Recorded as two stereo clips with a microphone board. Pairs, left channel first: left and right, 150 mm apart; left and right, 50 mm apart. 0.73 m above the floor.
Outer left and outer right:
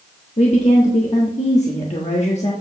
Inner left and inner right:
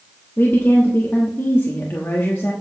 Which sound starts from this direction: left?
A woman speaking, at 0.4 s.